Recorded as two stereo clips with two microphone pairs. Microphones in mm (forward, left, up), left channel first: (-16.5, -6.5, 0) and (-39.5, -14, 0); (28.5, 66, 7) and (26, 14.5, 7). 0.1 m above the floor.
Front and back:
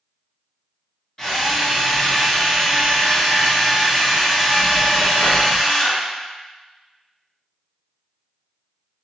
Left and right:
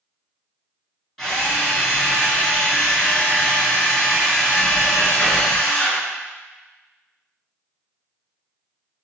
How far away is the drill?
About 1.0 m.